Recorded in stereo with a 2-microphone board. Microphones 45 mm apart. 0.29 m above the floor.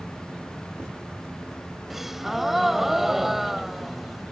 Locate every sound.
1.9 s a gasp: 5° right (ahead or behind)